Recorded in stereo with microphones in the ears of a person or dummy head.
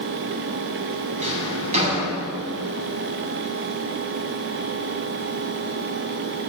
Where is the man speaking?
No man speaking in this recording.